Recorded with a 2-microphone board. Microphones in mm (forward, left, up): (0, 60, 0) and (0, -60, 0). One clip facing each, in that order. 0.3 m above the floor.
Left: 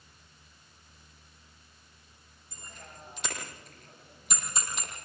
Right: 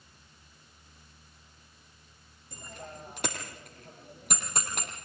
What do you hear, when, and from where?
2.5 s a bicycle bell: 60° right (ahead or behind), 7.5 m; by 4.9 s 55° right (ahead or behind), 6.5 m